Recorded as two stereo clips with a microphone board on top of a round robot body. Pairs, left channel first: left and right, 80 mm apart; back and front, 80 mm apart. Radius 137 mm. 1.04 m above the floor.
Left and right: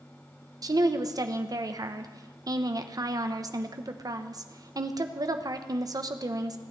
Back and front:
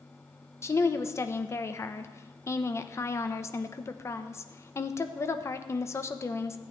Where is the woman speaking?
130° right, 1.1 m.